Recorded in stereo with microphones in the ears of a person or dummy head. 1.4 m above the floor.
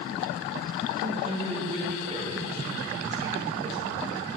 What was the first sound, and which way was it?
A man speaking, 30° right (ahead or behind).